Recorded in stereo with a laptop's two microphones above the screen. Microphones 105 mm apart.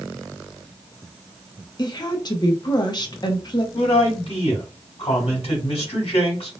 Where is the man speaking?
70° left (ahead or behind), 2 m.